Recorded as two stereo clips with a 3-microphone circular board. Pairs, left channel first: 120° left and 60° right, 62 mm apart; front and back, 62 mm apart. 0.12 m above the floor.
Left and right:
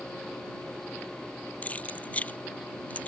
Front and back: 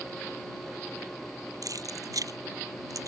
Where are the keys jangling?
175° right.